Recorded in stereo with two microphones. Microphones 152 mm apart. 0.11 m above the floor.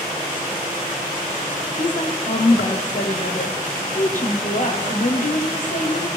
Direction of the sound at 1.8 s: 60° left (ahead or behind).